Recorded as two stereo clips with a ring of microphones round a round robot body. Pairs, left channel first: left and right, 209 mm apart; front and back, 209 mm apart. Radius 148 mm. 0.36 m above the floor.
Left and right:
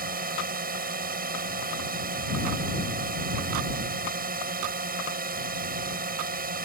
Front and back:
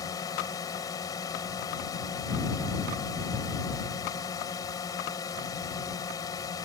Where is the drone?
70° right.